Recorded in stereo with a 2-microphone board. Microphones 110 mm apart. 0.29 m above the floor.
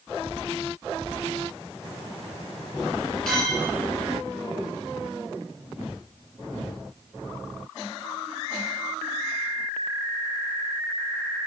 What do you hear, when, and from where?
3.3 s a clink: 5° left (ahead or behind), 4.5 m